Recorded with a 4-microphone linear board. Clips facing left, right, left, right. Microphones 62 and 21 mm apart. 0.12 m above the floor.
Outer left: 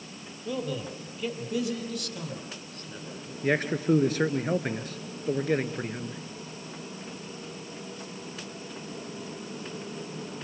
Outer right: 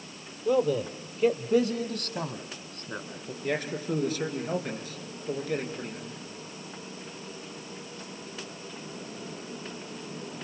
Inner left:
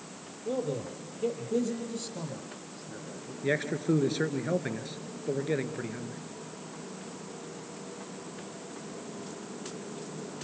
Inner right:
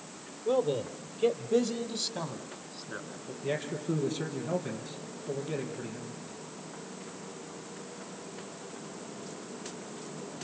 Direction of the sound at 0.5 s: 25° right (ahead or behind).